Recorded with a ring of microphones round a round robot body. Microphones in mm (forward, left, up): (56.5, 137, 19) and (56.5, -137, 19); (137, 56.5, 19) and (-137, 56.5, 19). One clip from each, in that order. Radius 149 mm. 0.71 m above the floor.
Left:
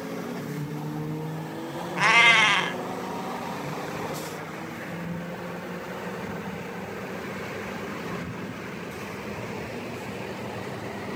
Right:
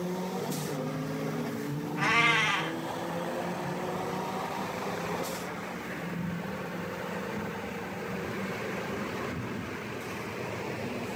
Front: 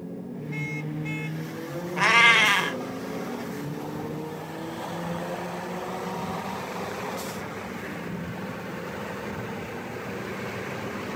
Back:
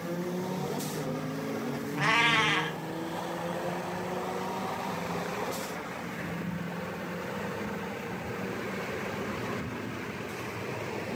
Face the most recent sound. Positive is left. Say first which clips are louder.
# left 7 dB, front 7 dB
turn(degrees=55)